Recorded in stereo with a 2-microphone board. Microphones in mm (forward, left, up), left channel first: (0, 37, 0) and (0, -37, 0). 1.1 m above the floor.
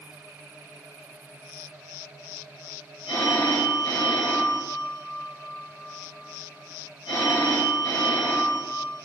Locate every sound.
3.1 s a phone ringing: 75° left (ahead or behind), 3 m